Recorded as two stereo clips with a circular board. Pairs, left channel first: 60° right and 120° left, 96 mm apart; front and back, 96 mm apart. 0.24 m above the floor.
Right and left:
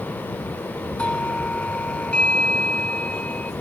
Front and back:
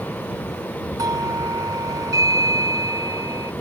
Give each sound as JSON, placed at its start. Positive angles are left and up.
{"t": 1.0, "sound": "a doorbell", "azimuth_deg": -135}